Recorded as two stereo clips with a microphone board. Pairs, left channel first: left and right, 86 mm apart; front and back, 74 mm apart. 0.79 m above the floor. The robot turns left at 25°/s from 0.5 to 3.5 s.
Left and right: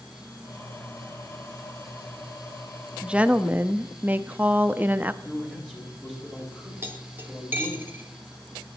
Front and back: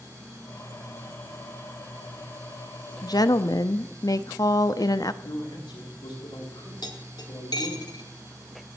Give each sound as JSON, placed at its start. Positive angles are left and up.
{"t": 3.0, "sound": "a woman speaking", "azimuth_deg": -10, "distance_m": 0.7}
{"t": 5.2, "sound": "a man speaking", "azimuth_deg": 5, "distance_m": 6.5}
{"t": 6.8, "sound": "cutlery clinking", "azimuth_deg": -25, "distance_m": 2.0}